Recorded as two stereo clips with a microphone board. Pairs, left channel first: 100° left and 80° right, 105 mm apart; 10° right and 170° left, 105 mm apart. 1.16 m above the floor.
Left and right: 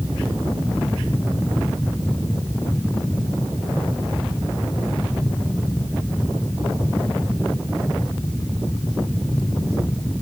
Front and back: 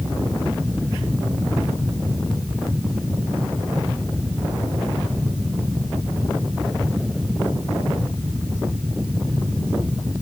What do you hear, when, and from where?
Only background noise.